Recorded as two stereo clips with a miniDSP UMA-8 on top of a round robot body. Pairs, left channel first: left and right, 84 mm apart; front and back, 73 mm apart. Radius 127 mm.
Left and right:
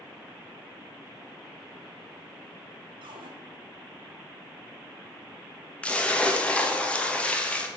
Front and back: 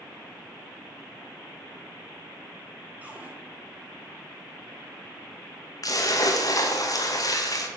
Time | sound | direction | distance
3.0 | a cupboard door | 110° right | 1.1 m
5.8 | a splash | 15° left | 1.1 m